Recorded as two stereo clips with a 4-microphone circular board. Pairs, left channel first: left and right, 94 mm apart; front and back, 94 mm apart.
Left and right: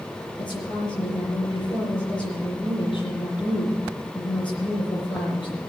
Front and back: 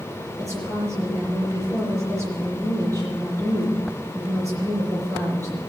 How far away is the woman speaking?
About 8 m.